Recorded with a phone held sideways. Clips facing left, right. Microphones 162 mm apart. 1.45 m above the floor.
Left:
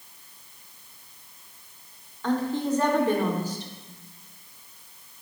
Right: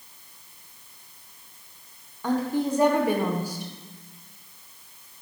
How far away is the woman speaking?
About 0.8 m.